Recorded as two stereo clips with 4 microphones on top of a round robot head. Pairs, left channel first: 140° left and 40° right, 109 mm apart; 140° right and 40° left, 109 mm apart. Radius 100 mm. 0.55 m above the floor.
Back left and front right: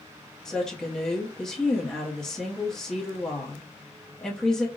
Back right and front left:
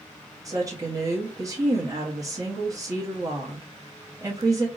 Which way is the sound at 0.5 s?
60° left.